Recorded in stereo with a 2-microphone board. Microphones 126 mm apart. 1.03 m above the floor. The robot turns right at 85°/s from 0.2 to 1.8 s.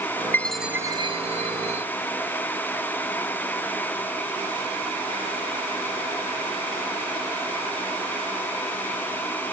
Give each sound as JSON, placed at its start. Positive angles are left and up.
{"t": 0.3, "sound": "a chime", "azimuth_deg": 160}